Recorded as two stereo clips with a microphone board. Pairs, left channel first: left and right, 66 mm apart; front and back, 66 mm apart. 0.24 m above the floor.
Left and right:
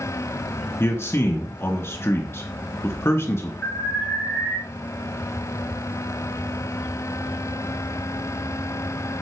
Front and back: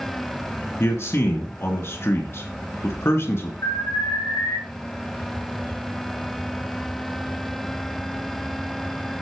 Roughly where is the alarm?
Ahead left.